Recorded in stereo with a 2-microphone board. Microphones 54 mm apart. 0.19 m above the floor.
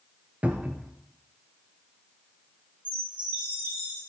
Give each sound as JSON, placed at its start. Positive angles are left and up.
{"t": 0.4, "sound": "a cupboard door", "side_deg": -30, "distance_m": 1.4}
{"t": 2.9, "sound": "a chime", "side_deg": -35, "distance_m": 5.0}